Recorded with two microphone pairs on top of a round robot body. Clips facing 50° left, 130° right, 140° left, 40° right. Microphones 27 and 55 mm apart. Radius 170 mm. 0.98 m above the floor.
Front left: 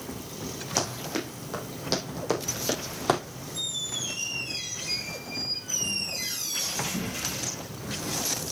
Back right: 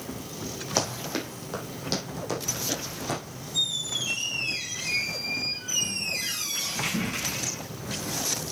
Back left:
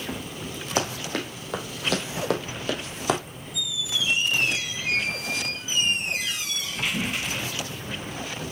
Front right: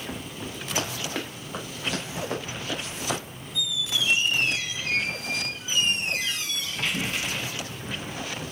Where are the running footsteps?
165° left, 3.5 m; by 3.2 s 85° left, 2.5 m.